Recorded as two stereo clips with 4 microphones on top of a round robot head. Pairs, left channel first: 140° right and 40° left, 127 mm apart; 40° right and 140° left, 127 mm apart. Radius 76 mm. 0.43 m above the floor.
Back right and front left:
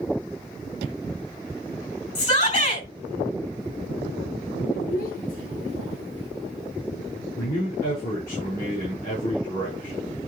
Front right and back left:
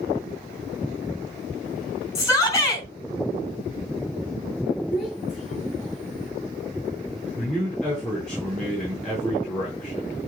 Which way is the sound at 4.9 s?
130° right.